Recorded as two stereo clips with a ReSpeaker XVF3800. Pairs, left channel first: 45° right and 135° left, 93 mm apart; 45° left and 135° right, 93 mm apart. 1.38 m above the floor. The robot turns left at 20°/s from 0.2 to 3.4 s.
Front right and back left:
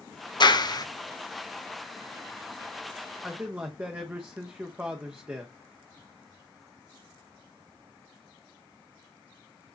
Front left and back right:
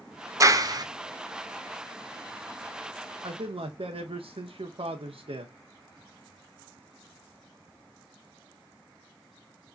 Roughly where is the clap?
Right.